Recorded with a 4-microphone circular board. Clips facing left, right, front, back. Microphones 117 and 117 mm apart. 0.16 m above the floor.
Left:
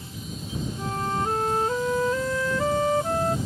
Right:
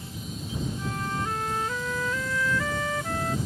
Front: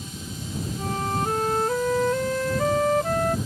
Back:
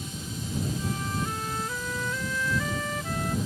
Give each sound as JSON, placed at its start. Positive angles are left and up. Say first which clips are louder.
{"t": 0.8, "sound": "a flute", "louder": "left 7 dB, front 5 dB", "azimuth_deg": 35}